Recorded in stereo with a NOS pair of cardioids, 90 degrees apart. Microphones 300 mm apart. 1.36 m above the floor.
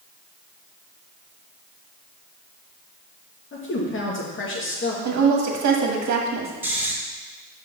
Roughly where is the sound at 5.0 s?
Ahead right.